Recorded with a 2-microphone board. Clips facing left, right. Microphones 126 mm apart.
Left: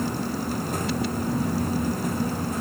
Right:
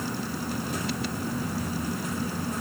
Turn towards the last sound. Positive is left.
No sound to turn to.